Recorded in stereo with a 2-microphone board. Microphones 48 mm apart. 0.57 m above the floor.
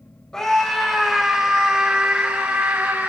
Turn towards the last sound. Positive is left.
turn(degrees=-50)  # may be behind; listen again after turning